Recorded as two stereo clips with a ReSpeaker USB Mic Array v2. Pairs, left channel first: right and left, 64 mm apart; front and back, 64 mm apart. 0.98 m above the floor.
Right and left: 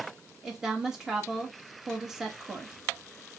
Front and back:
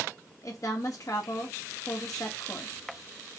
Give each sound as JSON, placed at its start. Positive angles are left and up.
{"t": 0.4, "sound": "a woman speaking", "azimuth_deg": 10, "distance_m": 1.5}